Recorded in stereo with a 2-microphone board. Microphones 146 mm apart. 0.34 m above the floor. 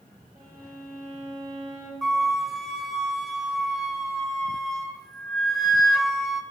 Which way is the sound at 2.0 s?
Centre (ahead or behind).